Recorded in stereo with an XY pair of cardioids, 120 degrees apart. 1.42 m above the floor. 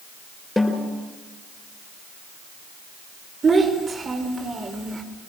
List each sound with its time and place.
0.6 s a snare drum: 5° left, 6 m
3.4 s a child speaking: 30° right, 4.5 m